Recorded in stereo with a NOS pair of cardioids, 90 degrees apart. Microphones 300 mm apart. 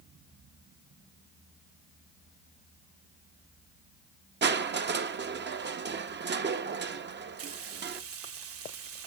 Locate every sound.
4.4 s crushing: 35° right, 1.0 m
7.4 s frying: 50° right, 1.4 m